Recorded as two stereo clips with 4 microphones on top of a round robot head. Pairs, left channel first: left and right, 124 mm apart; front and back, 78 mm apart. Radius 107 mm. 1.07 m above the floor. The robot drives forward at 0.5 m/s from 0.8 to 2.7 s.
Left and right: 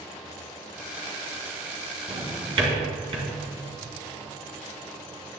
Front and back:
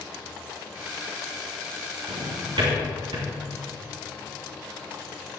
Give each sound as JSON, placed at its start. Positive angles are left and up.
{"t": 2.1, "sound": "a drawer", "azimuth_deg": -130, "distance_m": 2.5}